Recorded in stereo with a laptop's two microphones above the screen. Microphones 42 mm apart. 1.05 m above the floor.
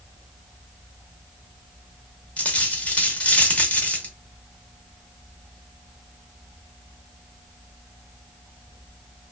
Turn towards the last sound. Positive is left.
turn(degrees=30)  # may be behind; listen again after turning